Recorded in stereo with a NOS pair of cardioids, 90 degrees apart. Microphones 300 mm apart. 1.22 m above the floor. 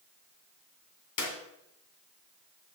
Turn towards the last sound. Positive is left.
turn(degrees=70)